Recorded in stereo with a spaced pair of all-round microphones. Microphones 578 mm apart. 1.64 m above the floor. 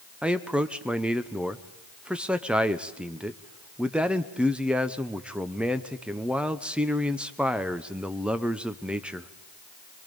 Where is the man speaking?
Centre (ahead or behind), 0.6 m.